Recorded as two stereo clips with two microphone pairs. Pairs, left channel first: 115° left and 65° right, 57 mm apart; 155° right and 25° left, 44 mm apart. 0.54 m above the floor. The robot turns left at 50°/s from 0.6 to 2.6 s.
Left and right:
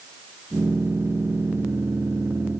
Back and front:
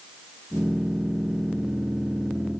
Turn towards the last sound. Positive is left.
No sound to turn to.